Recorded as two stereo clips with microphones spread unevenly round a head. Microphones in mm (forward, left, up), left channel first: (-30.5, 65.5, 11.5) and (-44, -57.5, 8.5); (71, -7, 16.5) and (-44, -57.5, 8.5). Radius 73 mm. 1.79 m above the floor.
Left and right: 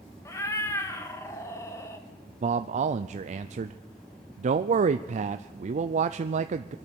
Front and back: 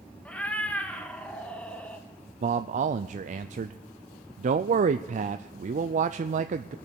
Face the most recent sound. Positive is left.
turn(degrees=-125)